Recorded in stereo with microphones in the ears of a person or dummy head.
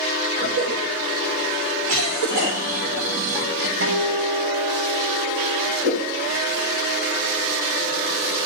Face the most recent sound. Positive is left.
turn(degrees=-60)  # may be behind; listen again after turning